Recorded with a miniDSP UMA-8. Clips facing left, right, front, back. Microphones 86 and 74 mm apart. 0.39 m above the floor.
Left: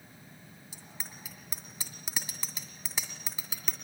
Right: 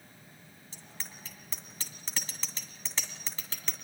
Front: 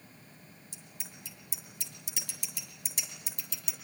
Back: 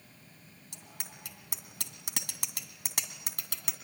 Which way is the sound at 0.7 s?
165° left.